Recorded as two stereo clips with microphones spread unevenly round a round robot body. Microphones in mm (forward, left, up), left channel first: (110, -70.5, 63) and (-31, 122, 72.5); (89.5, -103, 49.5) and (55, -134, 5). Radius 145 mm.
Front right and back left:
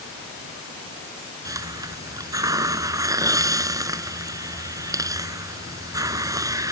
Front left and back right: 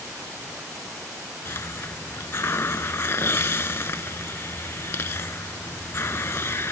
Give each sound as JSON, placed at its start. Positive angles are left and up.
{"t": 1.4, "sound": "a hiss", "azimuth_deg": 50}